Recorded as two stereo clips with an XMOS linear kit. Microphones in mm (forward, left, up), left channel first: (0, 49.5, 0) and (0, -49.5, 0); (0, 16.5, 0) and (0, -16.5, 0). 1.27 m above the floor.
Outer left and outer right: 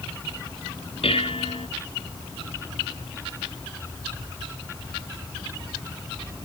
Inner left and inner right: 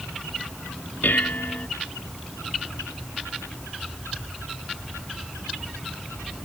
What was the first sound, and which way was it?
Dishes clattering, 70° left (ahead or behind).